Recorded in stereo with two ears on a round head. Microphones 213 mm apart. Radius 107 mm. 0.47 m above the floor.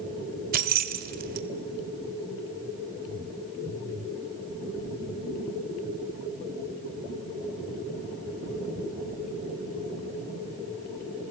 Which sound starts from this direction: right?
Keys jangling, at 0.5 s.